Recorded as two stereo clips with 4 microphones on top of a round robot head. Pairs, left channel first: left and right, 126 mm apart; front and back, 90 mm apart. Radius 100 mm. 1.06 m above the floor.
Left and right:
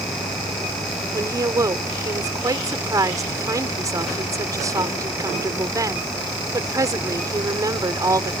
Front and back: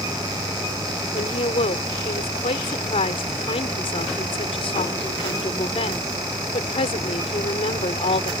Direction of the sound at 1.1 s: 25° right.